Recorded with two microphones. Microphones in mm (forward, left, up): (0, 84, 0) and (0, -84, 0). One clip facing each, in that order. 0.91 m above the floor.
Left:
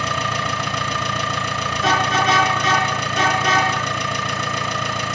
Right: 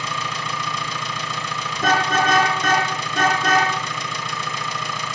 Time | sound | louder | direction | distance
0.0 | an engine running | left 5 dB | 65° left (ahead or behind) | 1.6 m
1.8 | a car horn | right 1 dB | 50° right (ahead or behind) | 4.5 m